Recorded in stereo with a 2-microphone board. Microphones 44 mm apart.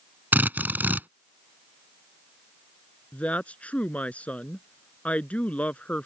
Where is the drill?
45° right (ahead or behind).